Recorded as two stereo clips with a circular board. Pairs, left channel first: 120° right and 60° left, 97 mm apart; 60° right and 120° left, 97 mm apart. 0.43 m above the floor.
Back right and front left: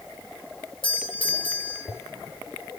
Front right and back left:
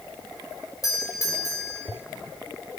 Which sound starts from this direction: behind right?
A doorbell, at 0.8 s.